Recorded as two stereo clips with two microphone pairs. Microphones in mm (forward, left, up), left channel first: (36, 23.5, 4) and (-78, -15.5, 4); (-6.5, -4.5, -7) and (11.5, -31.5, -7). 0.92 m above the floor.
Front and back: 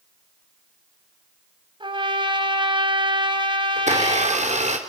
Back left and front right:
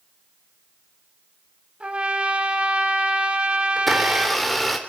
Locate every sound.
1.8 s a trumpet: 115° right, 2.5 m
3.8 s a blender: 145° right, 3 m